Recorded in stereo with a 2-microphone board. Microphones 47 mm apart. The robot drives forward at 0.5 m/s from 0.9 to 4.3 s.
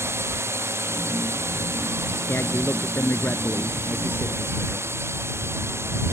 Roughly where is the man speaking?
Left.